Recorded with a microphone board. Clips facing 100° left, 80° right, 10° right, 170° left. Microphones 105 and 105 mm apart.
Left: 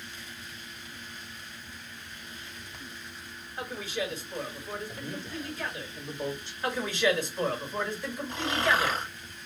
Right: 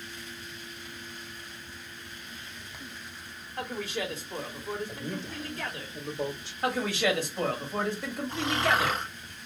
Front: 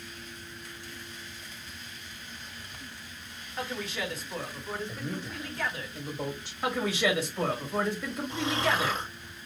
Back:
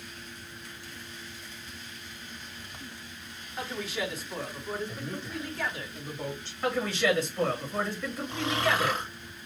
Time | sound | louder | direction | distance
3.6 | a man speaking | right 1 dB, back 1 dB | 105° right | 2.5 m
4.9 | a man speaking | right 2 dB, even | 90° right | 2.0 m
6.6 | a man speaking | even, back 1 dB | 95° right | 2 m
8.3 | snoring | even, even | 170° right | 2.5 m